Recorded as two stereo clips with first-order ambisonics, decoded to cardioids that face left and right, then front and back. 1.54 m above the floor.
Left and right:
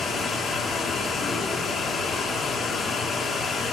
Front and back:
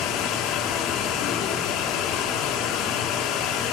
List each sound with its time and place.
0.0 s running water: 20° left, 1.9 m